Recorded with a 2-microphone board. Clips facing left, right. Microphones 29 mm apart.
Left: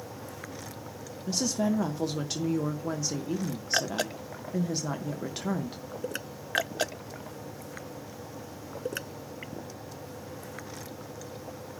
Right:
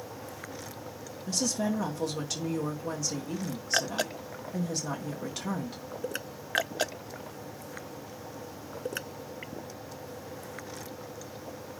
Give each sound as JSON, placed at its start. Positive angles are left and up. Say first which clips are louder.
{"t": 1.3, "sound": "a woman speaking", "louder": "left 2 dB", "side_deg": 15, "distance_m": 1.2}